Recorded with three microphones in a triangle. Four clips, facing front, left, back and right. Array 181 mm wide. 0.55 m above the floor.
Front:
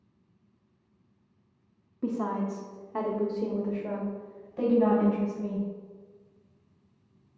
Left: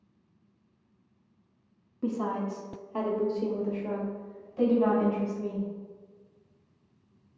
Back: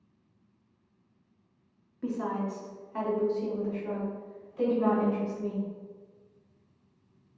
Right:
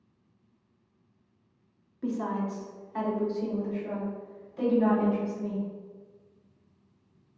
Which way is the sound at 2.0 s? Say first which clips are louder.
Even, front 2 dB; 25° left.